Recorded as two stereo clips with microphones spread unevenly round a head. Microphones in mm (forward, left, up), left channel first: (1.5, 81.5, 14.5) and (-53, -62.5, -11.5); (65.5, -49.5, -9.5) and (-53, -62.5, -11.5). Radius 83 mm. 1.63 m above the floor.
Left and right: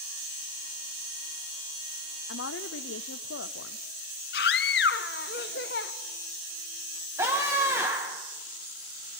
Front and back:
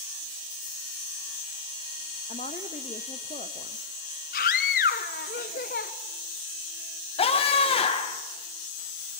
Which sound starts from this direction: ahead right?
A scream, at 7.2 s.